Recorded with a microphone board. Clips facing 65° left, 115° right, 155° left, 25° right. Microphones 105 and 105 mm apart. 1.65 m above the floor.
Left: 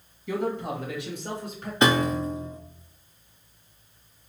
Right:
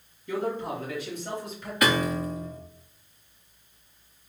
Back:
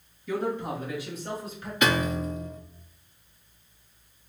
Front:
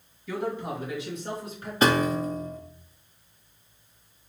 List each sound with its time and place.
0.3 s a man speaking: 60° left, 2.5 m; by 1.7 s 30° left, 2.5 m
1.8 s a piano: 15° left, 0.6 m